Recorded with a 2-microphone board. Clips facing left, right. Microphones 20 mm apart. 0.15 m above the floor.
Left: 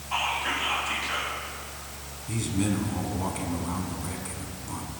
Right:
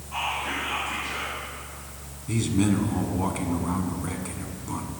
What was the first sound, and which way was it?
Whispering, 45° left (ahead or behind).